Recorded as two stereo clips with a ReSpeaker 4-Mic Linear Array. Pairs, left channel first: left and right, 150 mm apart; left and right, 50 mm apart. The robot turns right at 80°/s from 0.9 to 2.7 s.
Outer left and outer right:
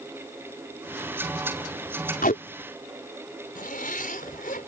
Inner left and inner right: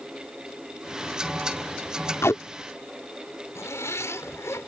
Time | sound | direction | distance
2.2 | tape being pulled | 80° left | ?
3.5 | a zipper | 75° left (ahead or behind) | ?